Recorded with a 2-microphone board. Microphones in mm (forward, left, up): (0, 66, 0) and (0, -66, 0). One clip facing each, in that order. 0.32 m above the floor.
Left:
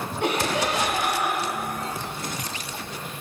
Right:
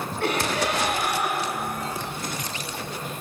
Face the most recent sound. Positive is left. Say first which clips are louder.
# left 1 dB
turn(degrees=20)  # may be behind; listen again after turning